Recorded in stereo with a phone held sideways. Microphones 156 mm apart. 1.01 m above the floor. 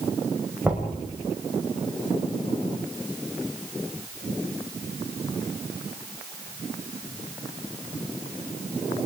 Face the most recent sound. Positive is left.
turn(degrees=-5)  # may be behind; listen again after turning